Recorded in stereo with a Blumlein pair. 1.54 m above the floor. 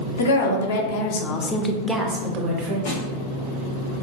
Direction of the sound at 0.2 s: 70° left.